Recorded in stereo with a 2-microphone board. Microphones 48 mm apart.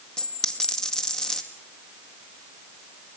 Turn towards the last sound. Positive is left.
turn(degrees=15)  # may be behind; listen again after turning